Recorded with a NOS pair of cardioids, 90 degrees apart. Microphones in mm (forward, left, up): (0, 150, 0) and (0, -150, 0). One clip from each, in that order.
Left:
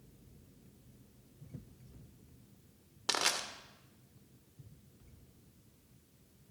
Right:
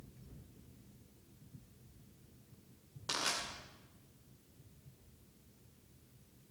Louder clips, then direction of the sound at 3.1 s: Left 4 dB; 55° left.